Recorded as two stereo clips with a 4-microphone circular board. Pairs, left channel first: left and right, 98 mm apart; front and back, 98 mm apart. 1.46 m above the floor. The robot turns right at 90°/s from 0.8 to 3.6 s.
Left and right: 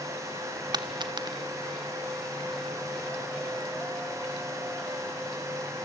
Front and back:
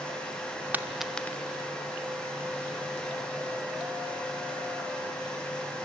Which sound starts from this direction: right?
A dropped coin, at 0.7 s.